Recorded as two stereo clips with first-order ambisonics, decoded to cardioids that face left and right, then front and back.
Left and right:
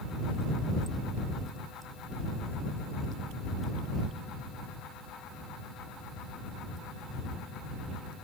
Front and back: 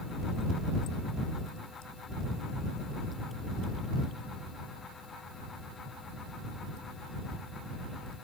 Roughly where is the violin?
No violin in this recording.